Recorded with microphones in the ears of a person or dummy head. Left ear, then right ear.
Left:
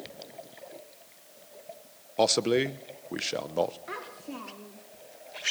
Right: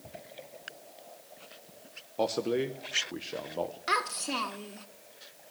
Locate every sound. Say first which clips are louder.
2.2 s a man speaking: left 5 dB; 55° left (ahead or behind), 1.0 m
3.9 s a child speaking: right 10 dB; 55° right (ahead or behind), 1.2 m